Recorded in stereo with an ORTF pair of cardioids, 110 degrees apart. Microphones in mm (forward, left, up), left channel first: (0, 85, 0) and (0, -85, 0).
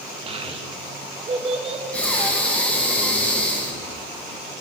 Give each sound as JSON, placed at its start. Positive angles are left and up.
{"t": 0.3, "sound": "a child speaking", "azimuth_deg": -35, "distance_m": 1.7}
{"t": 1.9, "sound": "breathing", "azimuth_deg": 10, "distance_m": 2.0}